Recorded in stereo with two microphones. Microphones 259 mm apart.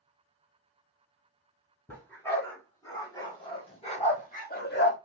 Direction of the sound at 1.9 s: 10° left (ahead or behind).